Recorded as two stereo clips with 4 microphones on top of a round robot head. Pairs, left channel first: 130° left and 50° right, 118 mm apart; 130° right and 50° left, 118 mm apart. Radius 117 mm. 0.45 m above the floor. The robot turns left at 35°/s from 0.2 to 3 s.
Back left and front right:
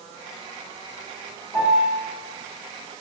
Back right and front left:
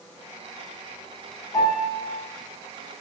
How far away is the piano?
About 1.9 m.